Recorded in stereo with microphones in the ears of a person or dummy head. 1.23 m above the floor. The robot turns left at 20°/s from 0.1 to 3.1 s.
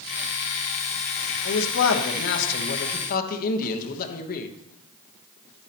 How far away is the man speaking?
About 1.1 m.